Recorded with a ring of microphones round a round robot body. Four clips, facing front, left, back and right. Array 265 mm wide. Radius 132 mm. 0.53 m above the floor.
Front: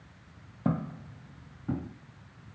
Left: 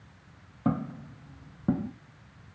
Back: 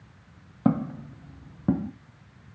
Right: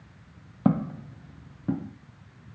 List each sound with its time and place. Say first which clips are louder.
0.7 s footsteps: right 5 dB, back 7 dB; 125° right, 0.7 m; by 1.9 s 160° left, 1.0 m